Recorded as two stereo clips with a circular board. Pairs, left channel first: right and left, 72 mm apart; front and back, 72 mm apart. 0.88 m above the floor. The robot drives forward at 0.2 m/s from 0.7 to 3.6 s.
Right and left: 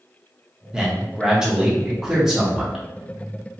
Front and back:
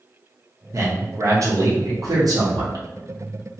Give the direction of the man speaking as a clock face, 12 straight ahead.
6 o'clock.